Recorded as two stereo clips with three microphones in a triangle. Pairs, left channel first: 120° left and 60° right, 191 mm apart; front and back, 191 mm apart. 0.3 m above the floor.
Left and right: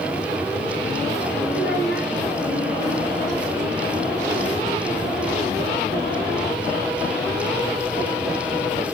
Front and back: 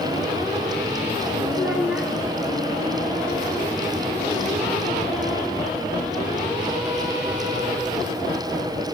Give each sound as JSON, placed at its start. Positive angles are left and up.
{"t": 1.5, "sound": "a child speaking", "azimuth_deg": 95, "distance_m": 3.0}